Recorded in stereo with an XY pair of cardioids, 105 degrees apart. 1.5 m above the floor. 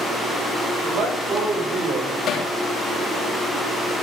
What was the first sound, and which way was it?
A man speaking, 45° right.